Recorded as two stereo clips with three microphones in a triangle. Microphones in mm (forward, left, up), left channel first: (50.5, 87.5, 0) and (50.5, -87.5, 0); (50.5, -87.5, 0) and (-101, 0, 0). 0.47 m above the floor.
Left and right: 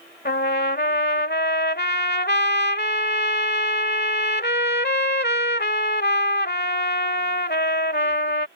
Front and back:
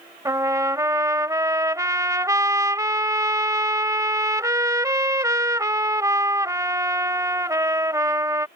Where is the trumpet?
80° left.